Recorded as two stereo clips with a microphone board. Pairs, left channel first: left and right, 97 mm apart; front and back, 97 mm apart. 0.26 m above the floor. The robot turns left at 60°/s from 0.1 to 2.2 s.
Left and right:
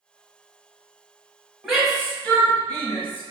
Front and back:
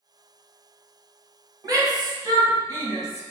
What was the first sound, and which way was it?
A shout, 170° right.